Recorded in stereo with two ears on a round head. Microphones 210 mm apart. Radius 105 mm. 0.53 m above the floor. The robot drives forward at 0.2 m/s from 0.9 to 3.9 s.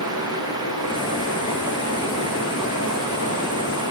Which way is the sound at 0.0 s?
65° left (ahead or behind).